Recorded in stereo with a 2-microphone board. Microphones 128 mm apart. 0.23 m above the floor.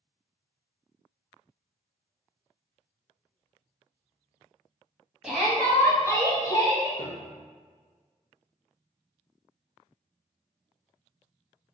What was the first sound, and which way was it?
A shout, 5° right (ahead or behind).